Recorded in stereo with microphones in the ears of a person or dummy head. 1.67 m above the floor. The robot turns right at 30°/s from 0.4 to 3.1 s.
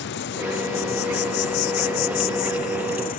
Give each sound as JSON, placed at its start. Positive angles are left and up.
{"t": 0.0, "sound": "an insect", "azimuth_deg": 55}